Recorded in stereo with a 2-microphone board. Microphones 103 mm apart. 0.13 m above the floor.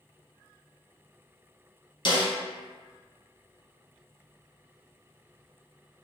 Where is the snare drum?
45° left (ahead or behind), 1.8 m.